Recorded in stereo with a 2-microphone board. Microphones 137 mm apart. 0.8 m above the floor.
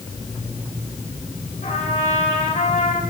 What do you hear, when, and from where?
1.6 s a trumpet: 65° left (ahead or behind), 3 m